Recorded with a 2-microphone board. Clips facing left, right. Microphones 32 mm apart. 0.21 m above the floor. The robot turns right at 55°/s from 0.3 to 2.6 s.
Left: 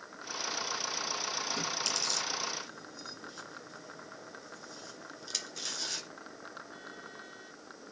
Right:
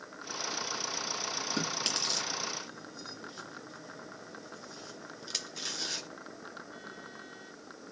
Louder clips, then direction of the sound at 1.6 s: Right 1 dB; 60° right (ahead or behind).